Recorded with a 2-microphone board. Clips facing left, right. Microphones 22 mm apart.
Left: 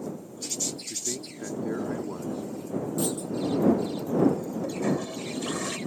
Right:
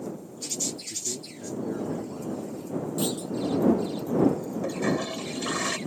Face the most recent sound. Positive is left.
turn(degrees=-30)  # may be behind; listen again after turning